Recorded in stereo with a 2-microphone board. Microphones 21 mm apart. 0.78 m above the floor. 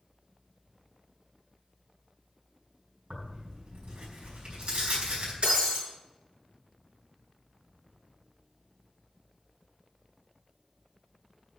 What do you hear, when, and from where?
3.1 s tearing paper: 80° right, 5 m
5.4 s breaking glass: 90° right, 6.5 m